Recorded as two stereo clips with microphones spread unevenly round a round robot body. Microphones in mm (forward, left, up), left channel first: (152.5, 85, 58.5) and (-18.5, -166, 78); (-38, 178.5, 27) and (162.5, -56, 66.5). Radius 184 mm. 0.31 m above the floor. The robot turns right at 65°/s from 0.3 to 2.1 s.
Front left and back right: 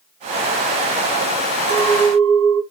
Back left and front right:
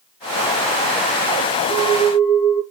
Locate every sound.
1.7 s a clink: 140° right, 1.9 m; by 2.6 s 115° right, 1.9 m